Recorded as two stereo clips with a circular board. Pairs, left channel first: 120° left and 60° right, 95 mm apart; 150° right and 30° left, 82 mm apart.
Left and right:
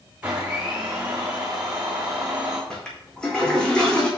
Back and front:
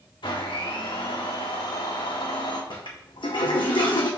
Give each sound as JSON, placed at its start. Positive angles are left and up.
{"t": 0.2, "sound": "a blender", "azimuth_deg": -135, "distance_m": 2.5}
{"t": 2.7, "sound": "a toilet flushing", "azimuth_deg": -160, "distance_m": 1.8}